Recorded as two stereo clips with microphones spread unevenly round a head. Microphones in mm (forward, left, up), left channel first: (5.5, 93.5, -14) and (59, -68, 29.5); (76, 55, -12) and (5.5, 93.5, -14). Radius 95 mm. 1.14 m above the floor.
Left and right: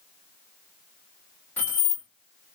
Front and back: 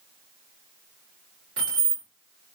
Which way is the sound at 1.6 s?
170° right.